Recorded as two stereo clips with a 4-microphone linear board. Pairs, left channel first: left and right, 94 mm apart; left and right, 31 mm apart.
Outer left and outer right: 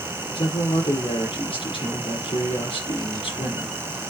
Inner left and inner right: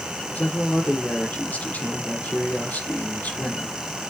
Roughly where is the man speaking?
Left.